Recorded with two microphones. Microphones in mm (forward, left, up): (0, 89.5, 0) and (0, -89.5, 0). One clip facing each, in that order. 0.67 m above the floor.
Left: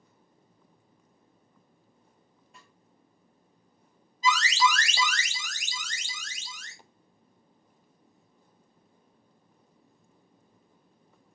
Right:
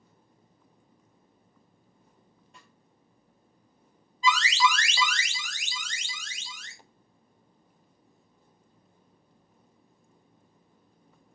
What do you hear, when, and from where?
2.5 s a snare drum: centre (ahead or behind), 1.2 m
4.2 s an alarm: 40° left (ahead or behind), 0.6 m